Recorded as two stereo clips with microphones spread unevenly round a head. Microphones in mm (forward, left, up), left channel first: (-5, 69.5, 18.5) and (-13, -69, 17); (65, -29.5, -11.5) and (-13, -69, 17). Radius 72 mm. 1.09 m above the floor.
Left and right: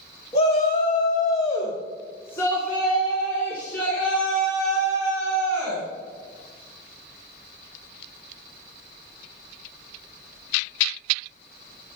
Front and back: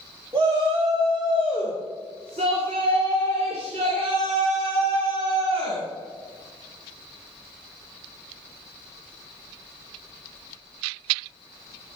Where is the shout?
130° left, 1.5 m; by 5.8 s 175° left, 6 m.